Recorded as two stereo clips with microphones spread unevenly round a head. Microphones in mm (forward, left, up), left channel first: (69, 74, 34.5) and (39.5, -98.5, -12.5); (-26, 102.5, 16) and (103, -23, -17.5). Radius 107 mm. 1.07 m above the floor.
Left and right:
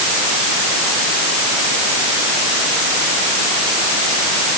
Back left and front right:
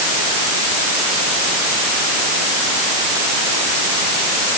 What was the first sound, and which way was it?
Only background noise.